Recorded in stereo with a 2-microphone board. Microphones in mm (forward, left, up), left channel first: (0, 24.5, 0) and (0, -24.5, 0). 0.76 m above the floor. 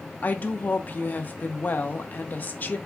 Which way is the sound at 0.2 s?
35° left (ahead or behind).